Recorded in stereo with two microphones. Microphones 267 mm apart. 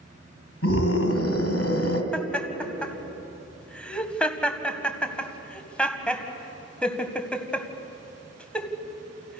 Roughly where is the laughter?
Centre.